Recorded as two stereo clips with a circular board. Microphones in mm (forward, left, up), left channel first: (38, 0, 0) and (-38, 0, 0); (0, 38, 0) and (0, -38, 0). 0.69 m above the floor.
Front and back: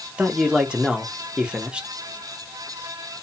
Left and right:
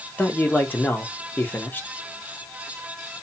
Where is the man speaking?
115° left, 0.7 m.